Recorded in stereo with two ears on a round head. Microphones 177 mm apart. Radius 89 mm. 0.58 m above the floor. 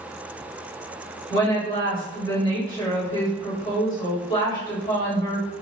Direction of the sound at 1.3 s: 25° left (ahead or behind).